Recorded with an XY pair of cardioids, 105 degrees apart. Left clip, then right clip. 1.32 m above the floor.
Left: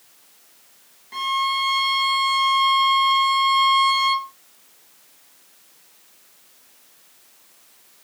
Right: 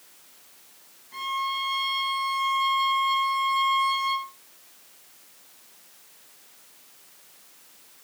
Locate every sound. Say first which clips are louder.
1.1 s a violin: left 6 dB; 60° left, 1.9 m